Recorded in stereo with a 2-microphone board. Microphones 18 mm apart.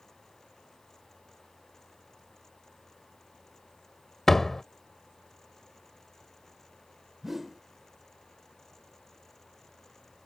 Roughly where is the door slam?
Centre.